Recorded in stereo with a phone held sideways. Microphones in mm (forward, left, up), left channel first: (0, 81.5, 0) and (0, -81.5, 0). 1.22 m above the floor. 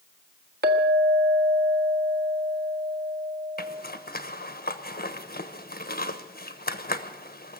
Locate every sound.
0.6 s a clink: 80° right, 1.5 m
3.6 s a zipper: 70° left (ahead or behind), 1.1 m